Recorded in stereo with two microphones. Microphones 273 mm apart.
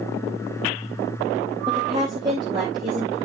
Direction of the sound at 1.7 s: 15° right (ahead or behind).